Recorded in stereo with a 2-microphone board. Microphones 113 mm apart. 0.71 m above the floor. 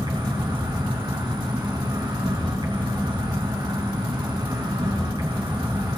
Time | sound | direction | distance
0.0 | an insect | 45° right (ahead or behind) | 5.5 m